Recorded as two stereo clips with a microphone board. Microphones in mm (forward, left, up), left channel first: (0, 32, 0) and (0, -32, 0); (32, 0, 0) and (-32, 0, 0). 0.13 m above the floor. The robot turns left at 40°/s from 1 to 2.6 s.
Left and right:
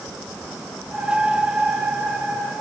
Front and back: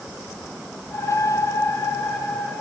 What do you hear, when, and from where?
Only background noise.